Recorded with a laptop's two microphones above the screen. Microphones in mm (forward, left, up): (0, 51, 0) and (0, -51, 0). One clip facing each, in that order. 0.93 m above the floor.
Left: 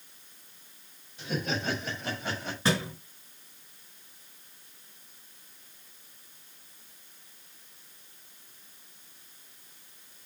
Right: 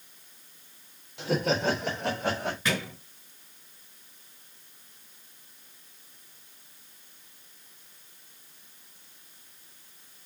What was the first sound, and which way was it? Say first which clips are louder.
Laughter: right 6 dB; 80° right.